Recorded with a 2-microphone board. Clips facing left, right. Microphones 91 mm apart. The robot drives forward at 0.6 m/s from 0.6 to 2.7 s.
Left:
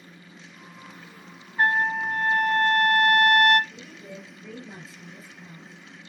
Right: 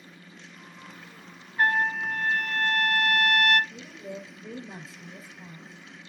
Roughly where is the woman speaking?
Right.